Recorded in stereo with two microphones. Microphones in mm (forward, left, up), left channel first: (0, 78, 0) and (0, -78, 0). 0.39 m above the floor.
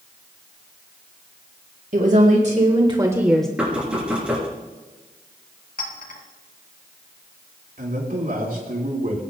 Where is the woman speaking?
60° right (ahead or behind), 2 m; by 3.5 s 5° left (ahead or behind), 1.1 m.